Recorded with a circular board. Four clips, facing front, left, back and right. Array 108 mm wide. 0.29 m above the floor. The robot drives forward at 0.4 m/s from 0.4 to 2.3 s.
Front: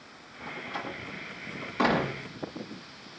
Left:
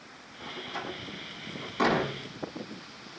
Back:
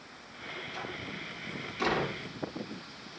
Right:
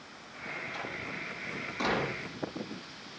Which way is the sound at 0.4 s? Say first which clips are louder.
Left 2 dB, front 4 dB; 20° left.